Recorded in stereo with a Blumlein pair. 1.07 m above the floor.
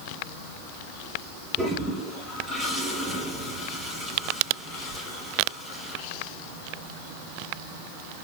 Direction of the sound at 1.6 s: 5° right.